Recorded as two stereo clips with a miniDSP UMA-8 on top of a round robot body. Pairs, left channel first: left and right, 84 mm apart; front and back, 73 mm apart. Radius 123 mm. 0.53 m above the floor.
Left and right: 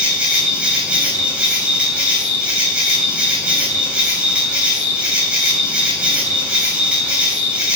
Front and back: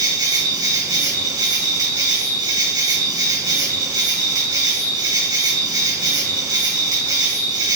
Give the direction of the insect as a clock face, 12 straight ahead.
5 o'clock.